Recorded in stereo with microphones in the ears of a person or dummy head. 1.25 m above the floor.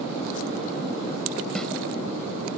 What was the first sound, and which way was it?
A snare drum, 5° left (ahead or behind).